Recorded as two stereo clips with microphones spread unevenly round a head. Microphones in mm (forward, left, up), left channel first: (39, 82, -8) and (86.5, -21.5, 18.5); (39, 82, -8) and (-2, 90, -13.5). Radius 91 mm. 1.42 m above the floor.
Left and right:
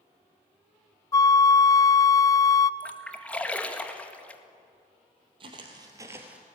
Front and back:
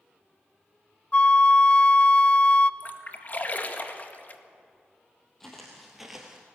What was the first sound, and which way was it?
A flute, 50° left.